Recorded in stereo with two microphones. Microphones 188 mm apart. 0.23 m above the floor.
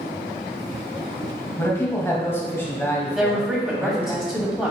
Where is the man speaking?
15° left (ahead or behind), 1.1 m.